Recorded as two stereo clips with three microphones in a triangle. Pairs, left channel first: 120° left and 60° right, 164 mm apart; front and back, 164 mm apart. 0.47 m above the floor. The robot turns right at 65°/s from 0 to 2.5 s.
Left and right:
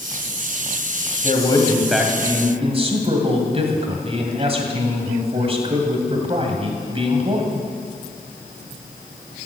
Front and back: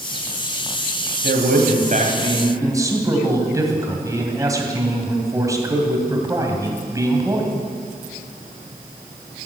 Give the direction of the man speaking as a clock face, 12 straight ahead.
6 o'clock.